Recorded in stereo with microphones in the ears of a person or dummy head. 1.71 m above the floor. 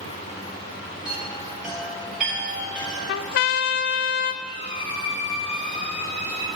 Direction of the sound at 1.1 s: Centre (ahead or behind).